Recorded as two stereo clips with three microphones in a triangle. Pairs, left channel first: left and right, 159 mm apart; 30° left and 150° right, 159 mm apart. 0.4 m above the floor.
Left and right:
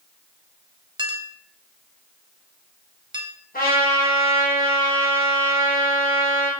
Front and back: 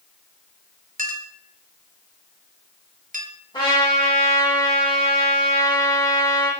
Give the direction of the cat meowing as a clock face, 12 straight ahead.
No cat meowing in this recording.